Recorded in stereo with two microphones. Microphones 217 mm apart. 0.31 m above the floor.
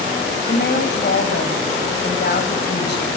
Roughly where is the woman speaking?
Left.